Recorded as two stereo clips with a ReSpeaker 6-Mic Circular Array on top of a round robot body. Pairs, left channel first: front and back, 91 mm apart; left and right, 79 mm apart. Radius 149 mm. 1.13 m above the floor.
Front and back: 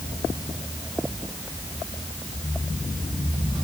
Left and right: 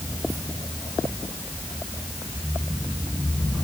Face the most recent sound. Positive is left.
No sound to turn to.